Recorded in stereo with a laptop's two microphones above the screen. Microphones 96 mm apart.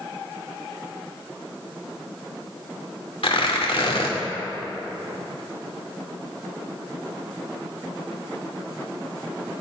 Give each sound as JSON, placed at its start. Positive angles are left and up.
{"t": 3.2, "sound": "tearing paper", "side_deg": 75, "distance_m": 2.5}